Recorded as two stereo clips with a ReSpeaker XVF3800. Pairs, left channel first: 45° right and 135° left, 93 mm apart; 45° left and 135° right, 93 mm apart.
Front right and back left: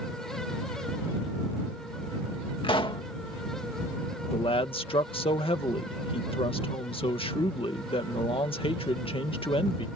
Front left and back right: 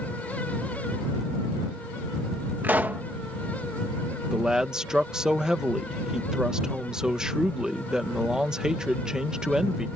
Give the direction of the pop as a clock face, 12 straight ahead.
2 o'clock.